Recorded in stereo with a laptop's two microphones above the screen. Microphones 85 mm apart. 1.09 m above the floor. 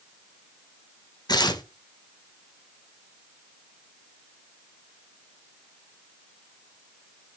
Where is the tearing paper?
55° left (ahead or behind), 1.3 m.